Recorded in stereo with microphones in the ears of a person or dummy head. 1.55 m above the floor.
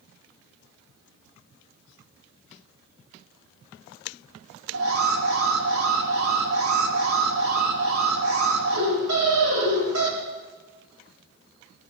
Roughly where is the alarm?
Right.